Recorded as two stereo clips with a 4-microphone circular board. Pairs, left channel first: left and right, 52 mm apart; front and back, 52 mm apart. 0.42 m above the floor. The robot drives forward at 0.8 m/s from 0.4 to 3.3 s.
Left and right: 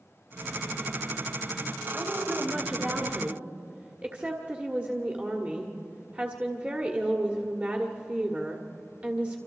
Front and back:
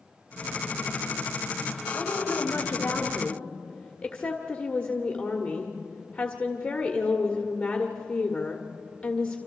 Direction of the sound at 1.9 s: 20° right.